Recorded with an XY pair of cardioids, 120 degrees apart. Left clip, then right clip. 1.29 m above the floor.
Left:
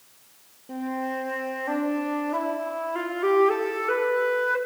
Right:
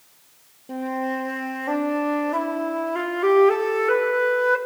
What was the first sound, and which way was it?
A flute, 20° right.